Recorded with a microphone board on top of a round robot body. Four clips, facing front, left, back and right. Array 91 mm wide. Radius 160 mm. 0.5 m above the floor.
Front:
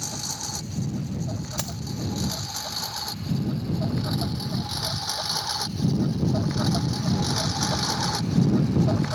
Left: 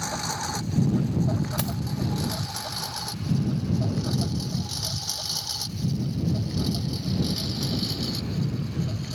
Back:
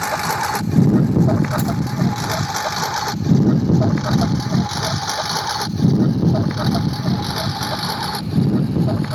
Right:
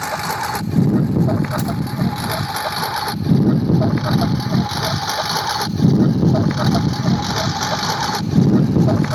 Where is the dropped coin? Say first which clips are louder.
Right 8 dB, back 13 dB; 50° left.